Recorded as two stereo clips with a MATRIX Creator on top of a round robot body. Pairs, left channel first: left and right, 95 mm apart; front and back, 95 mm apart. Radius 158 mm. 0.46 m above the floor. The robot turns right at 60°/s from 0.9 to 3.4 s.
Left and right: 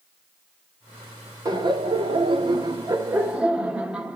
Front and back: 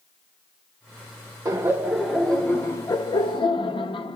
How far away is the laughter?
About 1.4 m.